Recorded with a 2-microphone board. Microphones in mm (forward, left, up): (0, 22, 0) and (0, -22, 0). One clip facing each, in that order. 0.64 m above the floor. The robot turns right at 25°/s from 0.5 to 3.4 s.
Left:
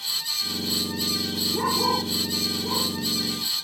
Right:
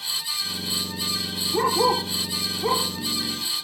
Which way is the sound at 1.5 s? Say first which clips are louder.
Right 4 dB; 30° right (ahead or behind).